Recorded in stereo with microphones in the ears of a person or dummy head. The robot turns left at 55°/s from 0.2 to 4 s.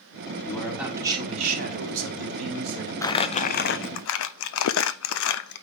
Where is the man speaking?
15° left, 3.5 m; by 2.9 s 120° right, 3.5 m.